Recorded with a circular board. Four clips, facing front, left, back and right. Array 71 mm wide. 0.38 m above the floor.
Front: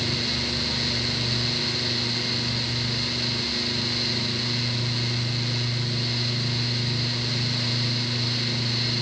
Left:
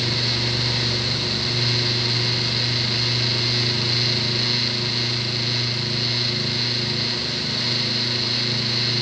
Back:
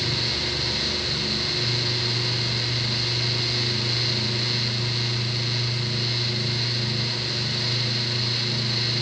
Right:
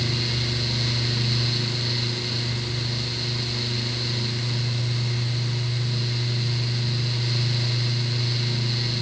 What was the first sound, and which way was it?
Only background noise.